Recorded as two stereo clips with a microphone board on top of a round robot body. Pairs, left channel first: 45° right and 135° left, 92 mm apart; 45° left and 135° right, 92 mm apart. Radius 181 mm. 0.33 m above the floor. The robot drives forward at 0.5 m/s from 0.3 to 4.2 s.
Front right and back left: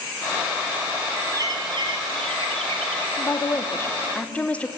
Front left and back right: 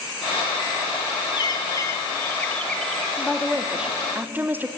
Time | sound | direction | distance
1.3 | a bird | 85° left | 0.9 m
3.2 | a woman speaking | 35° right | 1.0 m